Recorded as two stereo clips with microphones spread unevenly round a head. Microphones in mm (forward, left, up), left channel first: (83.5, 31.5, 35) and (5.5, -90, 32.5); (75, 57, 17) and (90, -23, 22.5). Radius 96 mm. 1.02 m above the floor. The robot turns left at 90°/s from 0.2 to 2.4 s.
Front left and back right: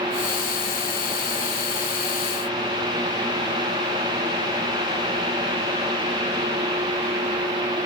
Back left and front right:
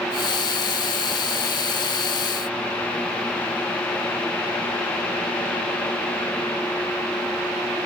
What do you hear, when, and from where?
Only background noise.